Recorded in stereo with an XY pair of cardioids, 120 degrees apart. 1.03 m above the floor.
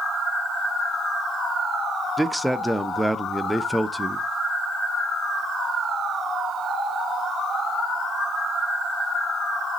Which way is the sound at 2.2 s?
5° right.